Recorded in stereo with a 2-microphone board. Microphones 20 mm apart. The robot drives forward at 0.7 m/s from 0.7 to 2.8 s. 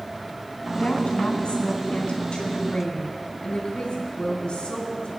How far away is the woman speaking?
About 3.5 m.